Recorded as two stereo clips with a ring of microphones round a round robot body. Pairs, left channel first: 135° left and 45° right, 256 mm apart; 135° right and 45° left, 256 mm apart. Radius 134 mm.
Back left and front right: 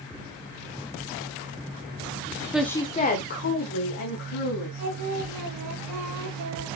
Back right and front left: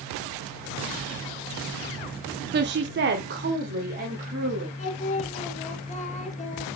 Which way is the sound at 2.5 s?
35° left.